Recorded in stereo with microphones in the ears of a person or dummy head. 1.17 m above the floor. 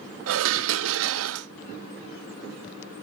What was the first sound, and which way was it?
Dishes clattering, 75° right (ahead or behind).